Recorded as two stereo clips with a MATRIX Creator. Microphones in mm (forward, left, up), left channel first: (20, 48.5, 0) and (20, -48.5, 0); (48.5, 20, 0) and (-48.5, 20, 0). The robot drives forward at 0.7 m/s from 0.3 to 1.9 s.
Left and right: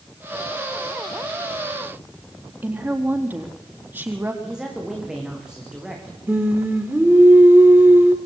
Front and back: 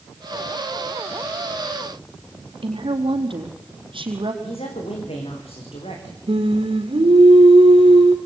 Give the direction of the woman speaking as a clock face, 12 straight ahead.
5 o'clock.